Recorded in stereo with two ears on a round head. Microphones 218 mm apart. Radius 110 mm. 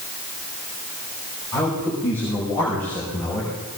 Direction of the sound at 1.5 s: 5° left (ahead or behind).